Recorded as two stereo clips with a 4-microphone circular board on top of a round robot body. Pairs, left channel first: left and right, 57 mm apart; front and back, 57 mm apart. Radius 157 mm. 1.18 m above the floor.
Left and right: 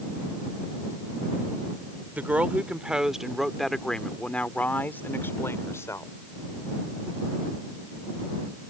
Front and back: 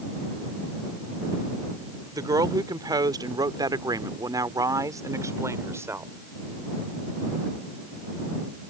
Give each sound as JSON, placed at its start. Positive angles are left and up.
{"t": 2.1, "sound": "a woman speaking", "azimuth_deg": -155}